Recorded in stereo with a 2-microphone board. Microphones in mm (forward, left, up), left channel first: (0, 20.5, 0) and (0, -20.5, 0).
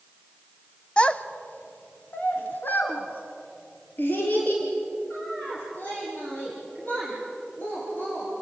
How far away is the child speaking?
About 1.0 m.